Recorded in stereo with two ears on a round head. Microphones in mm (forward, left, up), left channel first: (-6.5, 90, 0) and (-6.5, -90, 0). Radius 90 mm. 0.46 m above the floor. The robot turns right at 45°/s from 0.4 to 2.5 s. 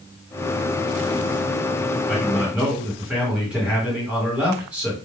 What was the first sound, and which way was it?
A man speaking, 5° left (ahead or behind).